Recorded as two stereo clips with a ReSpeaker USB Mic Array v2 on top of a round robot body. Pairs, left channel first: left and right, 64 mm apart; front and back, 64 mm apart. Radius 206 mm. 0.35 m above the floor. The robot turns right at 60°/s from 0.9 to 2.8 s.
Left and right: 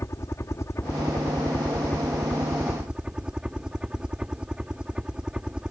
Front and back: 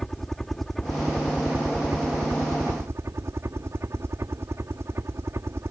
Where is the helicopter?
85° left; by 5.7 s 160° right.